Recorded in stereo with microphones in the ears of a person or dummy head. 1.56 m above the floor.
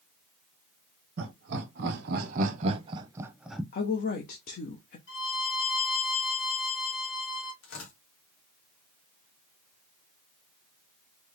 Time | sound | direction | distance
1.2 | laughter | 80° right | 1.4 m
3.7 | a woman speaking | 55° left (ahead or behind) | 0.7 m
5.1 | a violin | 75° left (ahead or behind) | 2.5 m
7.6 | tearing paper | 85° left | 1.4 m